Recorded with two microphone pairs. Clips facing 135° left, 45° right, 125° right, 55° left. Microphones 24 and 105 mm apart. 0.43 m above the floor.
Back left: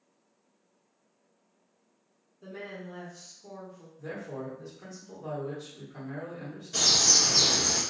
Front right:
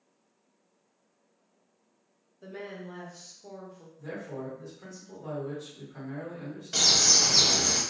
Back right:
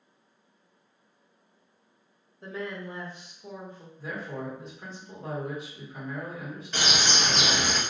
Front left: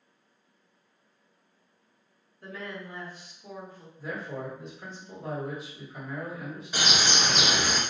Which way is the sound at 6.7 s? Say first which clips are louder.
Front right 1 dB, even; 25° right.